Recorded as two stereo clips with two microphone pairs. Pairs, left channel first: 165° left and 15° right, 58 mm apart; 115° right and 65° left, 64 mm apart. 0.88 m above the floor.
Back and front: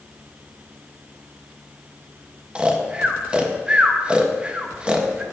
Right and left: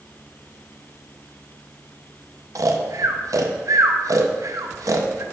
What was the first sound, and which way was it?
Snoring, 55° left.